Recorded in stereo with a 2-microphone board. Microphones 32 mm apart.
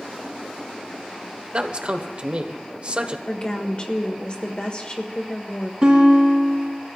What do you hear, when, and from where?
1.5 s a man speaking: 40° right (ahead or behind), 1.0 m
3.3 s a woman speaking: 35° left (ahead or behind), 1.6 m
5.8 s a guitar: 30° right (ahead or behind), 4 m